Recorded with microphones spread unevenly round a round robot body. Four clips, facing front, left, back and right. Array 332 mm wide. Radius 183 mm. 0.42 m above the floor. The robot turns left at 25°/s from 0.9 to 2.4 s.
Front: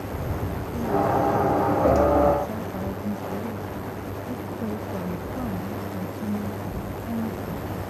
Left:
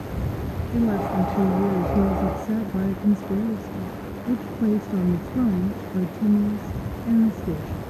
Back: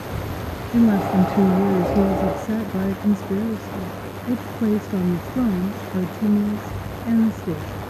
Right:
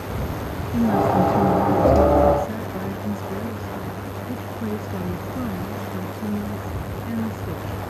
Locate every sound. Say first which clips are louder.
0.7 s a woman speaking: right 4 dB, back 6 dB; 170° left; by 7.8 s 130° left